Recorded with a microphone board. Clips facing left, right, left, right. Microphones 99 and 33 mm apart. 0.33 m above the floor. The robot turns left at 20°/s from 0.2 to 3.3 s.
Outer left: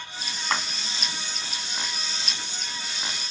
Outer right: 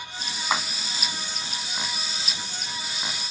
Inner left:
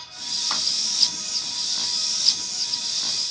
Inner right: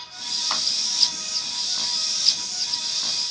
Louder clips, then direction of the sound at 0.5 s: Outer right 1 dB, inner right 1 dB; 10° right (ahead or behind).